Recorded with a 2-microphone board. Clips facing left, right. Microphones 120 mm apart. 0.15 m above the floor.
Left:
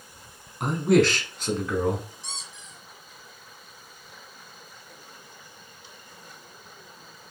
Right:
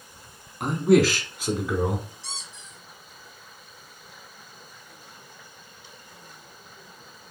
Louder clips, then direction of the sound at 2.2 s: Even; 15° left (ahead or behind).